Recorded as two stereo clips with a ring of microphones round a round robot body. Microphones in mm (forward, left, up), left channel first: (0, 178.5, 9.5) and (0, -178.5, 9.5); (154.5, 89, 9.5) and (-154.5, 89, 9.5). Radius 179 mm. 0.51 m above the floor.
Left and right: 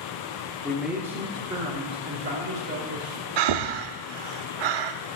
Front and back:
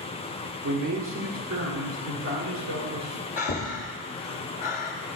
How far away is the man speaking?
About 1.6 m.